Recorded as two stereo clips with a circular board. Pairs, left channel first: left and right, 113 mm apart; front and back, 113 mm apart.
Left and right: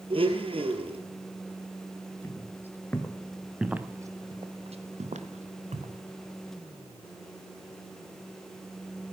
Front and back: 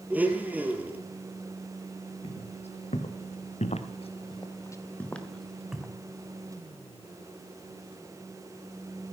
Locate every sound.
0.1 s a blender: 110° right, 1.8 m
2.2 s footsteps: 25° left, 2.5 m; by 6.0 s 100° right, 2.5 m